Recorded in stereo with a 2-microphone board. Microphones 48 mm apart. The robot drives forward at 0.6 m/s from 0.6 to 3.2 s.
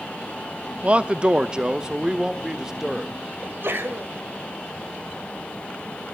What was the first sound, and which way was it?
A man speaking, 30° right (ahead or behind).